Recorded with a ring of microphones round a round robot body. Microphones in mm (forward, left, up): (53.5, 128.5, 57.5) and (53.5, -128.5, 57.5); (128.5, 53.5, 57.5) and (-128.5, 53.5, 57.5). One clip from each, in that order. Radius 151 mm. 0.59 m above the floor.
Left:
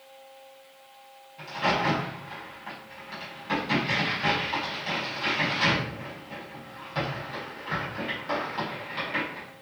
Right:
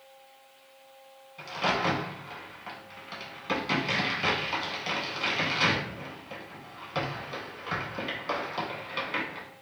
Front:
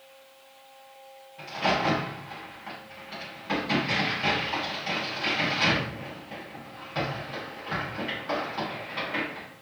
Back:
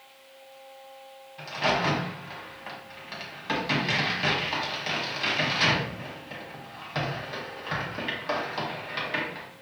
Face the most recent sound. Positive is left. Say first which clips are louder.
# left 2 dB, even
turn(degrees=-135)